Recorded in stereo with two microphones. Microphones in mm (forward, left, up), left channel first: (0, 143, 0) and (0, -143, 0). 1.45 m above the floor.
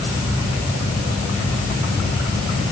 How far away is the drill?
I don't hear a drill.